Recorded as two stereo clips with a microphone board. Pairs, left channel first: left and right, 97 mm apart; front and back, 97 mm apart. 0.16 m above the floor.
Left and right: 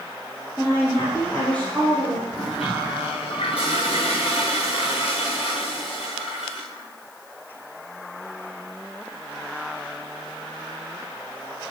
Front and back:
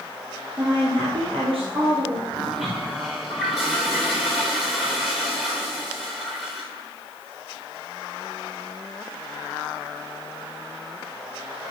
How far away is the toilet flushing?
About 4.5 m.